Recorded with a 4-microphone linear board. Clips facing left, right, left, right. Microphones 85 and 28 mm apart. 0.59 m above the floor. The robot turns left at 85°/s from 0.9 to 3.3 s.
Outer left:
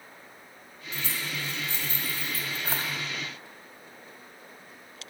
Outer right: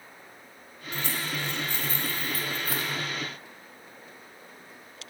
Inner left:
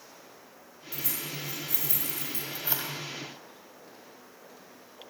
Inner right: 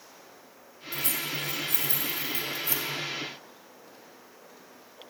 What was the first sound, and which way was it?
Keys jangling, 55° right (ahead or behind).